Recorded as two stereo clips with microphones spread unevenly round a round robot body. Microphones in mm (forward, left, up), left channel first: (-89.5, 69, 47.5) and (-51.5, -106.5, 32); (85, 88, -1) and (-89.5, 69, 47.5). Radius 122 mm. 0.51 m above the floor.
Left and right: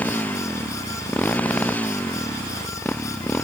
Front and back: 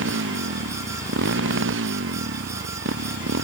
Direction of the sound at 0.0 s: 175° right.